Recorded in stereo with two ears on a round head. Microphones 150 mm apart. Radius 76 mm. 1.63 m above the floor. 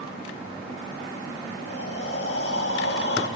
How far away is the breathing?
About 3.5 m.